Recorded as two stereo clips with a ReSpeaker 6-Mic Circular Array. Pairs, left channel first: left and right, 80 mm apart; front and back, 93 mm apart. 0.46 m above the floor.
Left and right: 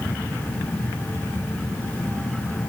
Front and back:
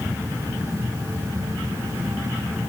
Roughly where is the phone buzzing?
No phone buzzing in this recording.